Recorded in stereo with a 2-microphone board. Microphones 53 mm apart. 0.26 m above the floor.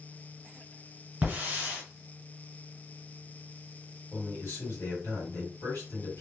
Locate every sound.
1.2 s a hiss: 25° right (ahead or behind), 1.7 m
4.1 s a man speaking: 35° left (ahead or behind), 1.9 m